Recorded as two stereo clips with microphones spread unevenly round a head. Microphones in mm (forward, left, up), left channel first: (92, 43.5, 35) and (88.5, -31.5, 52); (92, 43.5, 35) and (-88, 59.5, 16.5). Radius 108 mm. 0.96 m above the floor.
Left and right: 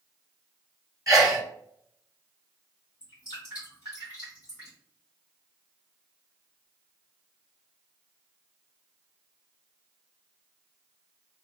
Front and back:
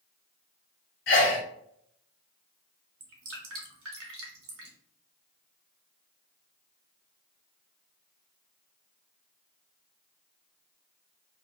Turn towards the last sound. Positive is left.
turn(degrees=-170)